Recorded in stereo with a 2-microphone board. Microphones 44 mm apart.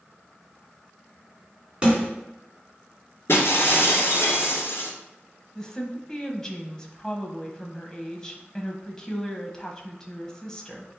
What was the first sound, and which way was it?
A snare drum, 20° right (ahead or behind).